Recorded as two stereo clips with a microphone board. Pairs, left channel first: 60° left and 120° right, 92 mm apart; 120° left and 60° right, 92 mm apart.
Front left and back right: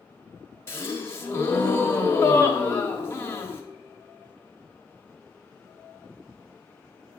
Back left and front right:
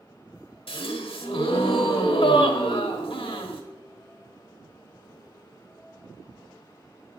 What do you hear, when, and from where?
0.7 s a gasp: 120° left, 1.0 m